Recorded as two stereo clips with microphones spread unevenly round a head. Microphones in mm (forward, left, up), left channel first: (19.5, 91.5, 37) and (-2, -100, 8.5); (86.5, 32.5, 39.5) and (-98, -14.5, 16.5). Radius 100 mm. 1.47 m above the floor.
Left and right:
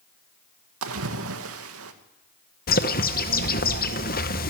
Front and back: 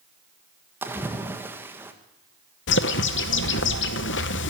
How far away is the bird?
About 1.0 m.